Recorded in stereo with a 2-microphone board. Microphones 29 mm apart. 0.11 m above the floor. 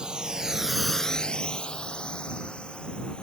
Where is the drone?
30° right (ahead or behind); by 3.2 s 35° left (ahead or behind).